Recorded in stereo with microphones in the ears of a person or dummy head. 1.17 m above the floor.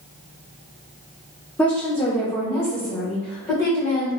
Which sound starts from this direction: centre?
A woman speaking, at 1.6 s.